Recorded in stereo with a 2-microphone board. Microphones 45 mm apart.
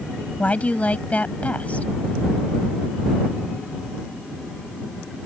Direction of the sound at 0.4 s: 35° left (ahead or behind).